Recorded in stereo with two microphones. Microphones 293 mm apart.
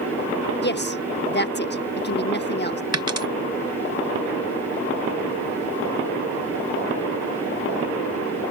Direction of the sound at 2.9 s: 60° right (ahead or behind).